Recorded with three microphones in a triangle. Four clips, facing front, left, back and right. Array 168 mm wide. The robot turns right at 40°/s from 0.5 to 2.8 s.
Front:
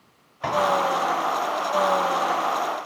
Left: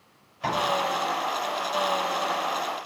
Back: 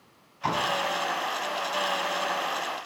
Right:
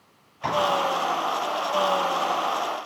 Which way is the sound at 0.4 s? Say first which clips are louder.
Right 2 dB, front 3 dB; 10° left.